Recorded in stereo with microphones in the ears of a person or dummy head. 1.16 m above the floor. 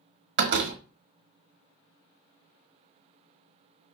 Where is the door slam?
60° right (ahead or behind), 1.3 m.